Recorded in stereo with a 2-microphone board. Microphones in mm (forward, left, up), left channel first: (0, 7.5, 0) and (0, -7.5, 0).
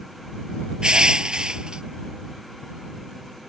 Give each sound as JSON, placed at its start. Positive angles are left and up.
{"t": 0.8, "sound": "crushing", "side_deg": -55}